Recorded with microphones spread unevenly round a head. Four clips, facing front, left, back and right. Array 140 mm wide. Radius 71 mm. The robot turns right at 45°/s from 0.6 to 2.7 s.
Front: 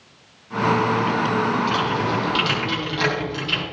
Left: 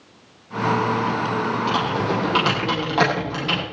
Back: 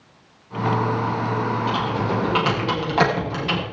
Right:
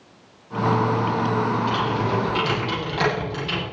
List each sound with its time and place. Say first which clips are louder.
1.7 s typing on a keyboard: left 1 dB, front 1 dB; 95° left, 9.5 m; by 3.6 s 140° left, 9.5 m